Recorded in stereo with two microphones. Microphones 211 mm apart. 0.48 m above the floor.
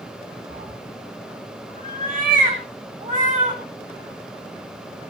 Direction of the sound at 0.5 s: 50° right (ahead or behind).